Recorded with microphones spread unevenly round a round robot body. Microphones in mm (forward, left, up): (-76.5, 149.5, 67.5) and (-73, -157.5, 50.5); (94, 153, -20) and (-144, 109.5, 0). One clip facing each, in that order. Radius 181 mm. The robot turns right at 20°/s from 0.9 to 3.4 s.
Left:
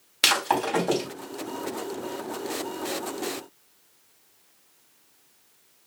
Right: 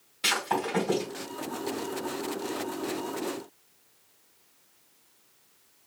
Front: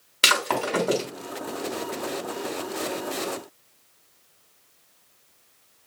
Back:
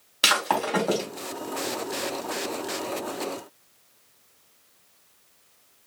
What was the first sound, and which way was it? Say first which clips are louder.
Breaking glass: left 3 dB, front 1 dB; 70° left.